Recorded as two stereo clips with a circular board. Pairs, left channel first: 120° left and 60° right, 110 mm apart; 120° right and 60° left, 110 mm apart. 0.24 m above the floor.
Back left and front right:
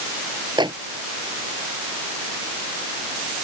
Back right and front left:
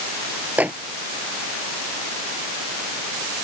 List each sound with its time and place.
0.6 s a microwave: 15° right